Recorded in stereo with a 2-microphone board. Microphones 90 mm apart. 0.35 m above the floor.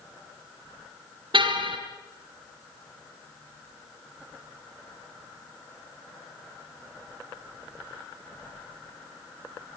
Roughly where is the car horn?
Right.